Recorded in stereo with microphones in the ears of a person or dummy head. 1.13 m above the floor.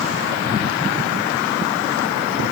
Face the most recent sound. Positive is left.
No sound to turn to.